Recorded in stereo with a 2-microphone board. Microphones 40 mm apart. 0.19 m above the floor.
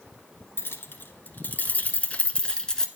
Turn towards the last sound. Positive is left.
turn(degrees=10)  # may be behind; listen again after turning